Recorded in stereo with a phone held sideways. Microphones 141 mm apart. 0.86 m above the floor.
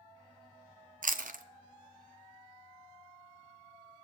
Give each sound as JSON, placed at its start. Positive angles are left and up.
{"t": 1.0, "sound": "chewing", "side_deg": -70, "distance_m": 0.6}